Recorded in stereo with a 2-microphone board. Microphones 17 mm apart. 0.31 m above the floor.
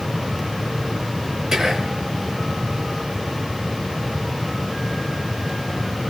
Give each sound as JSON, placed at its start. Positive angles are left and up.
{"t": 1.5, "sound": "whispering", "side_deg": -35, "distance_m": 1.6}